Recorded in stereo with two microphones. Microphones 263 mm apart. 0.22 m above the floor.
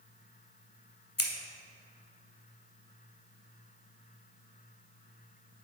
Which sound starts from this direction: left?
Scissors, at 1.2 s.